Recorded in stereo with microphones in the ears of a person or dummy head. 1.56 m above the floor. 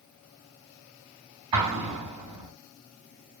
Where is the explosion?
25° right (ahead or behind), 3 m.